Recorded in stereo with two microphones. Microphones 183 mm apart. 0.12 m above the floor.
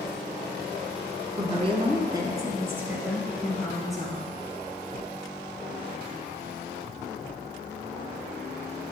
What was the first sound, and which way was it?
A woman speaking, 35° right (ahead or behind).